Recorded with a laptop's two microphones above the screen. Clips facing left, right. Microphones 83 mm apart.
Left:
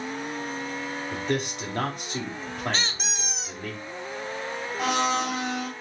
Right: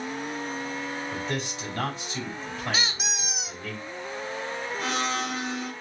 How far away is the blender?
About 3 m.